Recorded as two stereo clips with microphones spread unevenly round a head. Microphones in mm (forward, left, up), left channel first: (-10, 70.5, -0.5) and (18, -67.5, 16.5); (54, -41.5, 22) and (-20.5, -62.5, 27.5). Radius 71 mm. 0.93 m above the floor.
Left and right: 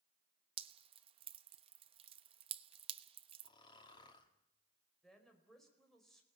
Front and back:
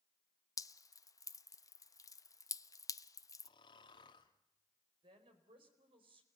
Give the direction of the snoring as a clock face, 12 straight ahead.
11 o'clock.